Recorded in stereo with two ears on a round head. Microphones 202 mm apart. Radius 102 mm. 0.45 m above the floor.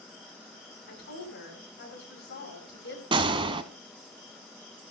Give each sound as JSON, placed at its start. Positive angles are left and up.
{"t": 0.9, "sound": "a woman speaking", "side_deg": 50, "distance_m": 8.5}
{"t": 3.1, "sound": "a gunshot", "side_deg": -20, "distance_m": 0.9}